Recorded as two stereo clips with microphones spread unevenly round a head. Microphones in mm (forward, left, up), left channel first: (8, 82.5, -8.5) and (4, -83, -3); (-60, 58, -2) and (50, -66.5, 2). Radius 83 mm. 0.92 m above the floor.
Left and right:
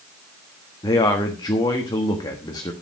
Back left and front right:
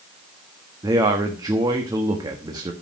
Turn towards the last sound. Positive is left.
turn(degrees=20)